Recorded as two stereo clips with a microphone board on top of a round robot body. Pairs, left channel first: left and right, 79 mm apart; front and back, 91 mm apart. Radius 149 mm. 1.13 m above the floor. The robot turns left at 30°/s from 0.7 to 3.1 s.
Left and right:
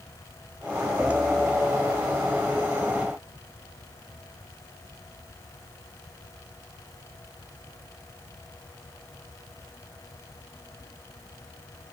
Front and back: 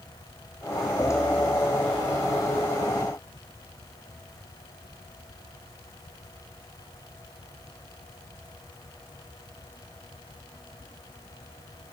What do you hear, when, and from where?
Only background noise.